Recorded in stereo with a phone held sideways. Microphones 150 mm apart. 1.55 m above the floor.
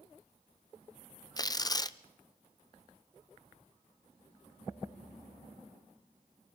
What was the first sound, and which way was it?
Tearing paper, 25° left (ahead or behind).